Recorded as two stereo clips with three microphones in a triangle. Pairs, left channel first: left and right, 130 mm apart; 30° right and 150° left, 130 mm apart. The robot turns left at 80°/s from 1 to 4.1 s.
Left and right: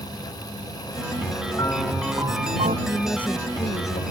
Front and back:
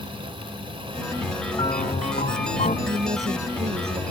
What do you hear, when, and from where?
1.5 s a piano: 30° left; by 2.8 s 65° right
2.9 s a woman speaking: 165° right; by 4.0 s 105° left